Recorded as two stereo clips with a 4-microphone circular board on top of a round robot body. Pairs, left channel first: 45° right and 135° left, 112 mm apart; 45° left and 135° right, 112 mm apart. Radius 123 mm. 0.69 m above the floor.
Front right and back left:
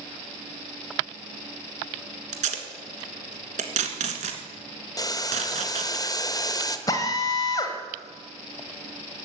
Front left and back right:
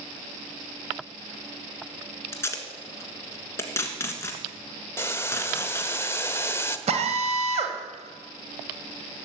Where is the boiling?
10° right, 1.3 m.